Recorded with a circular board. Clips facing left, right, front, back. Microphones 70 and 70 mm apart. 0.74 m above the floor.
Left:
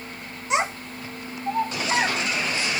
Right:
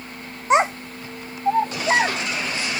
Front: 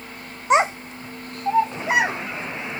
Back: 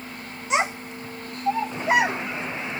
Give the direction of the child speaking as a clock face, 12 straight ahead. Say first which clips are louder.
Right 7 dB, front 6 dB; 1 o'clock.